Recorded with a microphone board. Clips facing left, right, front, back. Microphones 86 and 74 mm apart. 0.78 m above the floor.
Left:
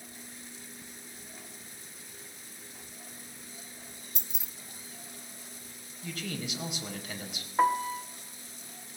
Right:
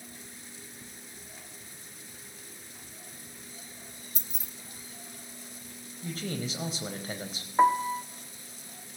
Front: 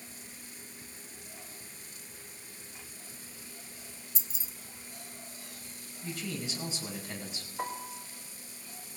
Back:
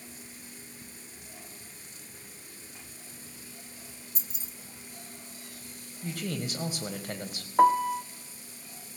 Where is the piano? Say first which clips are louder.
Right 3 dB, back 17 dB; 170° right, 1.2 m.